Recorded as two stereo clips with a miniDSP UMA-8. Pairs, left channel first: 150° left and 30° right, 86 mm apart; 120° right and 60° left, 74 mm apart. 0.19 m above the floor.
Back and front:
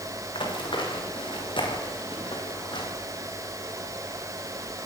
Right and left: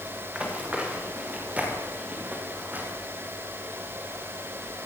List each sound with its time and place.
0.3 s running footsteps: 135° left, 7 m; by 2.9 s 130° left, 6 m